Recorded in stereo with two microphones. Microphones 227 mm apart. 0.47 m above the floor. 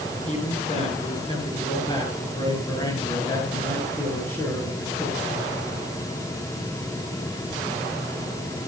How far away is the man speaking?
About 8.5 m.